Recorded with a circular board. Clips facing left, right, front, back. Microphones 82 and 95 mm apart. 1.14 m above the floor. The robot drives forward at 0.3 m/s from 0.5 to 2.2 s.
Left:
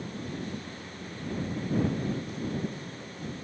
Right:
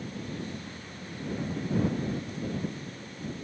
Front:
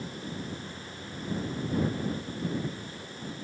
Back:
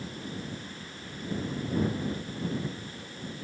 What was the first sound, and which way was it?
Only background noise.